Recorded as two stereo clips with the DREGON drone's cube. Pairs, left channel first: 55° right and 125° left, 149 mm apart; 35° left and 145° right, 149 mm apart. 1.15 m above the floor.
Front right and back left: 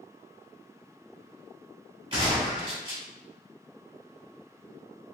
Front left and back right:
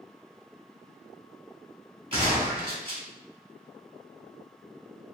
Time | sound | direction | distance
2.1 | a gunshot | 170° left | 1.8 m